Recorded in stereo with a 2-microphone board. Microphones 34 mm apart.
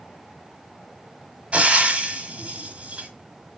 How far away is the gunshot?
I don't hear a gunshot.